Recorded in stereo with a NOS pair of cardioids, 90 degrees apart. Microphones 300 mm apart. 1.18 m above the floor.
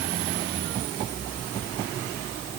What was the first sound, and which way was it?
Only background noise.